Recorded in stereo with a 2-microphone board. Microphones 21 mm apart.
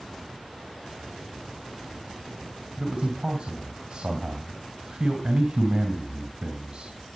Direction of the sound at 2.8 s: 55° right (ahead or behind).